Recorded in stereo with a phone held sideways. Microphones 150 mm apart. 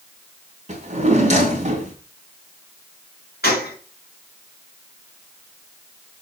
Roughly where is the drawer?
Right.